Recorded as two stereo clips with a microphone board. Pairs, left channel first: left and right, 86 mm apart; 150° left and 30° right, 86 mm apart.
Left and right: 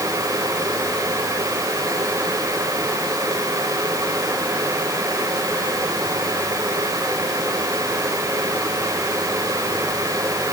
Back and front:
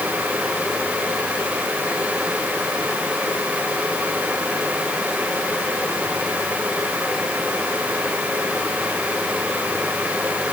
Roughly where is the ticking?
I don't hear ticking.